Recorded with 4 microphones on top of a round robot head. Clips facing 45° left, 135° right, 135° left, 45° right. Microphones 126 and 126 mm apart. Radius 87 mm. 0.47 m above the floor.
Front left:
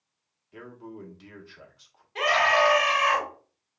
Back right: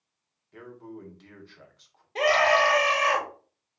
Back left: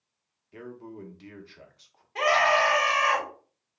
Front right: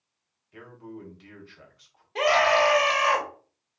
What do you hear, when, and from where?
0.5 s a man speaking: 125° left, 0.8 m
2.1 s a scream: 105° right, 1.2 m